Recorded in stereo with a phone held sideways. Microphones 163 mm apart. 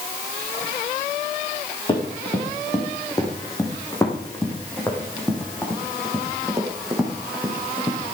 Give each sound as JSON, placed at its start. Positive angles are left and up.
{"t": 1.9, "sound": "running footsteps", "side_deg": 30, "distance_m": 4.5}